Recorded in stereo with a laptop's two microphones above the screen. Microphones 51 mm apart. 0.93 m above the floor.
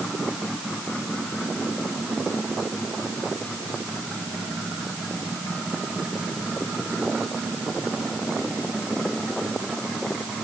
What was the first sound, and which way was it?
Only background noise.